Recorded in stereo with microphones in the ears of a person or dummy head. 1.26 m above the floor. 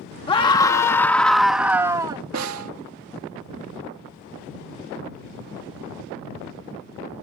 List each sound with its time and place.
0.3 s a scream: 25° left (ahead or behind); by 2.2 s 20° right (ahead or behind)
2.3 s a snare drum: 80° right